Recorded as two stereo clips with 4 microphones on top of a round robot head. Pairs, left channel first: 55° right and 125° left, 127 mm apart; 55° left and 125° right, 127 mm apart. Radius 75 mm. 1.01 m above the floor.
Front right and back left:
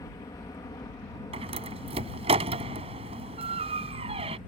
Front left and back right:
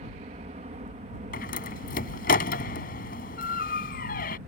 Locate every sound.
0.0 s a helicopter: 115° right
1.3 s a door slam: 75° left